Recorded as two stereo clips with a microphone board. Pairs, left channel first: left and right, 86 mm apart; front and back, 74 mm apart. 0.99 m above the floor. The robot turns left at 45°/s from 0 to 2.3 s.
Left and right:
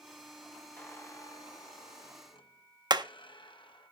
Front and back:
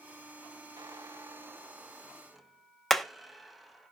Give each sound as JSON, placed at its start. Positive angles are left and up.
{"t": 0.8, "sound": "a squeak", "azimuth_deg": 160, "distance_m": 0.7}
{"t": 2.9, "sound": "hammering", "azimuth_deg": -90, "distance_m": 0.5}